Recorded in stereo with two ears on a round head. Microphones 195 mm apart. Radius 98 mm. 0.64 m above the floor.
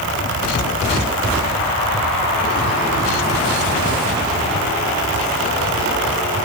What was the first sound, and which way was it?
Only background noise.